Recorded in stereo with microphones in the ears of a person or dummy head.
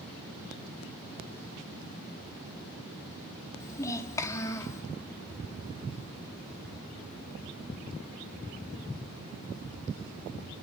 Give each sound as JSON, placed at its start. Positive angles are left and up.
{"t": 3.6, "sound": "a child speaking", "side_deg": 20, "distance_m": 2.0}